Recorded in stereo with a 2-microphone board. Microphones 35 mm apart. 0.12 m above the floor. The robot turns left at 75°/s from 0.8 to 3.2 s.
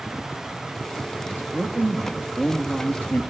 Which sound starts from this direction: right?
A man speaking, at 1.3 s.